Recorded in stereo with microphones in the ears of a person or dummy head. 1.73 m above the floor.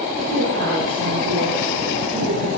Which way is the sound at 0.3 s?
75° right (ahead or behind).